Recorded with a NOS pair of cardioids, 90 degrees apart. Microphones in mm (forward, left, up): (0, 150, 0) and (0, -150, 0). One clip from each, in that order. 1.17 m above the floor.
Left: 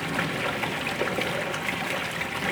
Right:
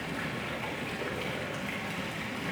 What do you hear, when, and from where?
0.0 s running water: 70° left, 1.1 m